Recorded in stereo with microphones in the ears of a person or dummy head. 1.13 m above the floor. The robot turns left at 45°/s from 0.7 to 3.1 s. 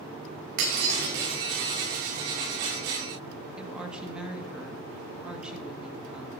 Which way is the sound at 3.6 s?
15° right (ahead or behind).